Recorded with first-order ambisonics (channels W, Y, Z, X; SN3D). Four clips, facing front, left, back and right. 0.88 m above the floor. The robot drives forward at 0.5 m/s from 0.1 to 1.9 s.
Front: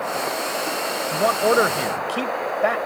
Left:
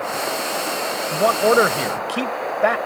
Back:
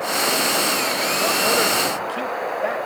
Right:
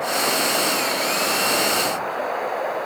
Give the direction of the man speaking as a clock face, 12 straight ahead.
10 o'clock.